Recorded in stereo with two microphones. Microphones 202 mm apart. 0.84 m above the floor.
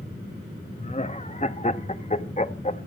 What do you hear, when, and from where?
0.8 s laughter: 35° left (ahead or behind), 1.0 m